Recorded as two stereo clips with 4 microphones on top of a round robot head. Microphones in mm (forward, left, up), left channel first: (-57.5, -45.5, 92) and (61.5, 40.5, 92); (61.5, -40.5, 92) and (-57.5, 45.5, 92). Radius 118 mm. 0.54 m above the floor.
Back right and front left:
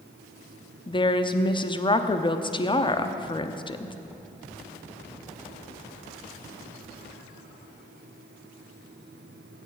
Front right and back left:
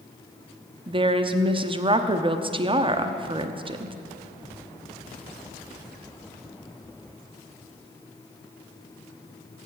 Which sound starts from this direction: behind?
A woman speaking, at 0.9 s.